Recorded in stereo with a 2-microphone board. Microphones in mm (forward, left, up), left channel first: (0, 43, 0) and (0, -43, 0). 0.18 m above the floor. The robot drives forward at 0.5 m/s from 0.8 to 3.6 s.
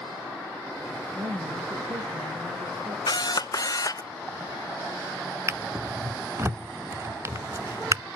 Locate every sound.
1.1 s a woman speaking: 60° right (ahead or behind), 4 m; by 3.0 s 50° right (ahead or behind), 4.5 m
3.1 s a camera shutter: 55° left (ahead or behind), 0.8 m; by 4.1 s 45° left (ahead or behind), 0.9 m
5.5 s a drawer: 35° right (ahead or behind), 0.5 m